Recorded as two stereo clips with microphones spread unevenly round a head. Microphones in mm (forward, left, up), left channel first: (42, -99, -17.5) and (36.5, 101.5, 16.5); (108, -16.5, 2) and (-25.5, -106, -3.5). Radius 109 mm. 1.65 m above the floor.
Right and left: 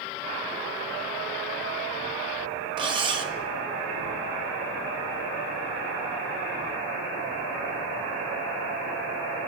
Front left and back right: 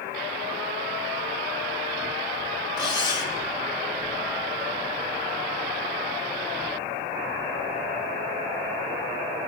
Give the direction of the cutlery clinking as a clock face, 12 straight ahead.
9 o'clock.